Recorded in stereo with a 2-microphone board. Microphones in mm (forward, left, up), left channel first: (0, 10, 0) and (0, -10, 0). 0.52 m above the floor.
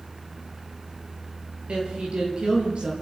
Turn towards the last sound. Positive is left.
turn(degrees=-60)  # may be behind; listen again after turning